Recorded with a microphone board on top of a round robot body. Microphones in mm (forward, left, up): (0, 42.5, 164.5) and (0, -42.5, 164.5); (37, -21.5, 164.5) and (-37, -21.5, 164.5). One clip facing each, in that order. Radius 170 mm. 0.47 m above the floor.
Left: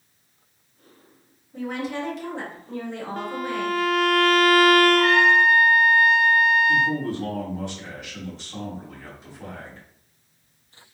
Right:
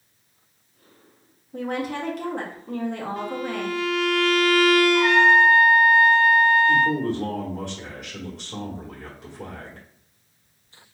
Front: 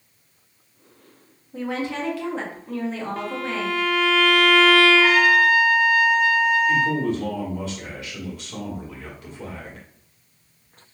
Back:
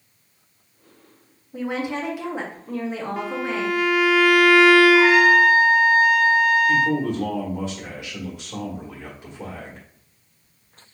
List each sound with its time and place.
1.5 s a woman speaking: 110° right, 1.8 m
3.2 s a violin: 105° left, 0.6 m
4.9 s a trumpet: 150° right, 2 m
6.7 s a man speaking: 110° right, 2 m